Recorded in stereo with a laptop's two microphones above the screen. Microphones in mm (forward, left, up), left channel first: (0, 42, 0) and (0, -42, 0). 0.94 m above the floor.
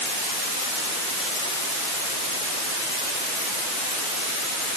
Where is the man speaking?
I don't hear a man speaking.